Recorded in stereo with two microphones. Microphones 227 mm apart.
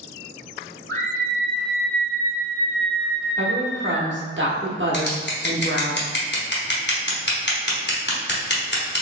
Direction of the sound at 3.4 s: 55° right (ahead or behind).